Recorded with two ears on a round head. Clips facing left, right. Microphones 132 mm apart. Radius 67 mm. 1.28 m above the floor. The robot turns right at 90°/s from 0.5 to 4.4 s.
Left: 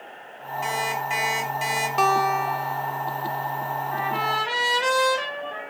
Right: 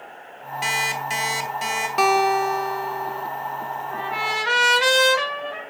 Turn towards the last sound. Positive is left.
turn(degrees=-80)